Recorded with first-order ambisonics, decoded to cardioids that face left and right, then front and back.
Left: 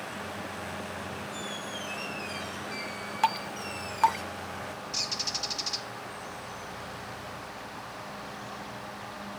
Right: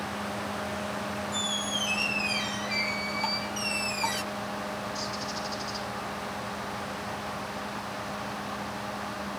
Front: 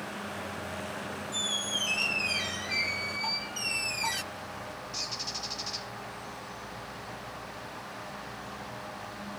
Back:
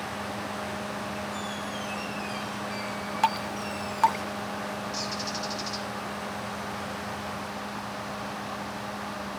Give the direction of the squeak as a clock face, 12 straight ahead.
1 o'clock.